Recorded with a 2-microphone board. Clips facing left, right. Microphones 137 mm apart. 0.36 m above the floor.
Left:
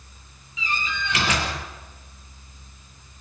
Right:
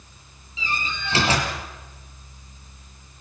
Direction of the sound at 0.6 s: 30° right (ahead or behind).